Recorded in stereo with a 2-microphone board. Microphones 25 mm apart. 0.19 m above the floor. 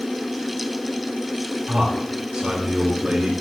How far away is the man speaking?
About 4 m.